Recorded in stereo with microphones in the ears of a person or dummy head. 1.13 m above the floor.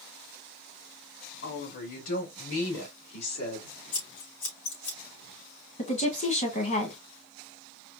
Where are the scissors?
70° left (ahead or behind), 3 m.